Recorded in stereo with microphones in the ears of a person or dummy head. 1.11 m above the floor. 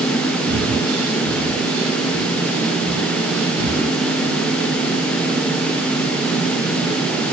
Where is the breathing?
80° right, 6.5 m.